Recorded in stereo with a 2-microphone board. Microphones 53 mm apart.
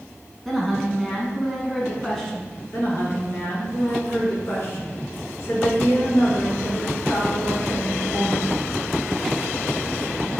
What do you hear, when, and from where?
0.5 s a woman speaking: 5° left (ahead or behind), 1.1 m
2.7 s a woman speaking: 55° left (ahead or behind), 2.0 m